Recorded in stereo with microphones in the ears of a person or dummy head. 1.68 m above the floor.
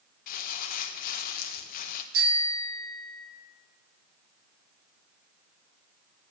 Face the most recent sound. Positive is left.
turn(degrees=-65)  # may be behind; listen again after turning